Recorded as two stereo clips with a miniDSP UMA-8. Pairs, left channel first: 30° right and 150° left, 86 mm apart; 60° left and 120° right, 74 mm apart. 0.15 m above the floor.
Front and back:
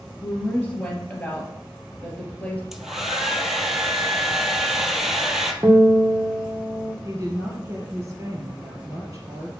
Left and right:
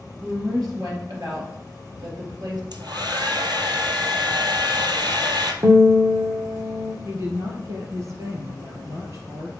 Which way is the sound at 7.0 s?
155° right.